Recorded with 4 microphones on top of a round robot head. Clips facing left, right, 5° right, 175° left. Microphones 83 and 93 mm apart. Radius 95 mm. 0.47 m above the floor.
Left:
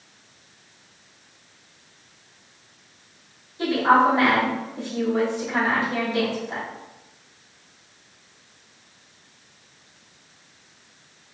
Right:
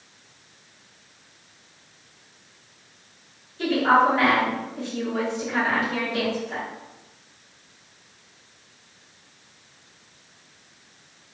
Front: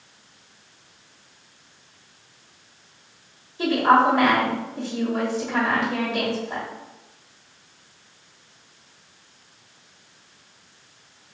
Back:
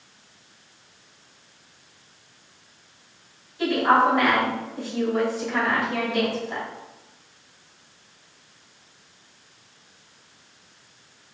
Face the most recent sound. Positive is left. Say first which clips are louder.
# left 1 dB, front 2 dB
turn(degrees=35)